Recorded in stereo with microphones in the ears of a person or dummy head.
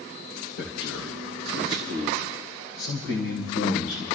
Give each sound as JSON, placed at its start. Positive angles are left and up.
{"t": 0.6, "sound": "a man speaking", "side_deg": 85, "distance_m": 2.5}